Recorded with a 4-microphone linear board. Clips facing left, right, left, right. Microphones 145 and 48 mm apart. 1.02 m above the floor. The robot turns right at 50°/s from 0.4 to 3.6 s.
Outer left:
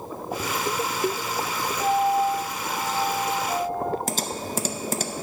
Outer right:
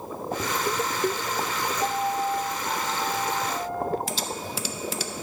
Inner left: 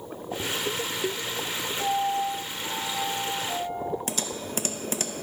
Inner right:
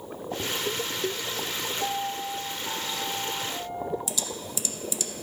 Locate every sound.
1.8 s a piano: 50° left, 2.0 m; by 4.0 s 145° left, 2.0 m
4.1 s typing on a keyboard: 45° left (ahead or behind), 0.6 m